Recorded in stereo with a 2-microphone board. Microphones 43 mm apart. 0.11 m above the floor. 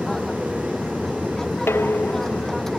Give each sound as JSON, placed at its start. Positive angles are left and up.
{"t": 0.0, "sound": "an aircraft", "side_deg": 10}
{"t": 1.7, "sound": "dishes clattering", "side_deg": 65}